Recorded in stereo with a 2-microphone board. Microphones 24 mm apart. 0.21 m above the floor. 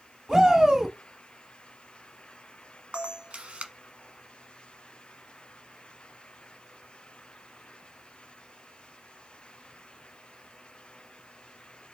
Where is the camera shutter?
55° right (ahead or behind), 1.0 m.